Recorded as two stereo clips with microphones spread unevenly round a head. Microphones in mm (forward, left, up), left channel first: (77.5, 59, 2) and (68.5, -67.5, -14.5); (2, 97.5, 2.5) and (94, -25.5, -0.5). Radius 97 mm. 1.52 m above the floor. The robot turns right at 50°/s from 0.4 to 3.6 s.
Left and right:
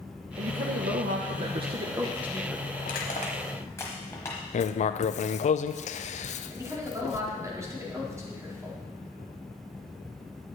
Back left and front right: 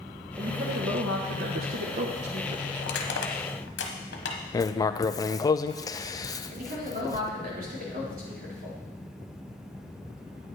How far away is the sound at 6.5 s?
About 4 m.